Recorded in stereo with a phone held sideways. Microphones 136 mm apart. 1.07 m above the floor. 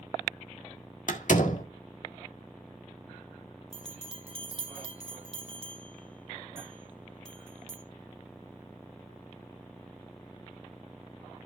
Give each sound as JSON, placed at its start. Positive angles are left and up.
{"t": 1.1, "sound": "a door slam", "side_deg": 65, "distance_m": 1.7}
{"t": 3.7, "sound": "a bell", "side_deg": -40, "distance_m": 1.4}